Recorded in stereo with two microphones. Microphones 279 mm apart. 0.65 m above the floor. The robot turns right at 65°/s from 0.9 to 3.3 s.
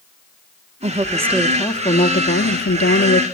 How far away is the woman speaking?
About 1.0 m.